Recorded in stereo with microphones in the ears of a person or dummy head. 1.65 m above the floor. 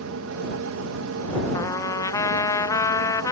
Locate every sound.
0.0 s a fan: 75° right (ahead or behind)
1.5 s a trumpet: 20° left (ahead or behind)